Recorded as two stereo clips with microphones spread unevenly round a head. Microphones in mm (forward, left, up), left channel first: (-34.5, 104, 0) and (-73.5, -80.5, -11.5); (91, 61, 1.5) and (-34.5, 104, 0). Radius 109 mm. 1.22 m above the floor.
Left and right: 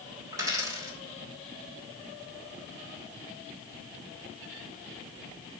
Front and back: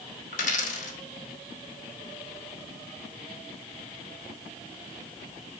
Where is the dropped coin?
25° right, 1.0 m.